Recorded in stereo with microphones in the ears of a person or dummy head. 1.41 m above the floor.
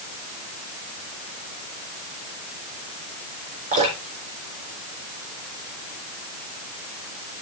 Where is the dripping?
40° right (ahead or behind), 4 m.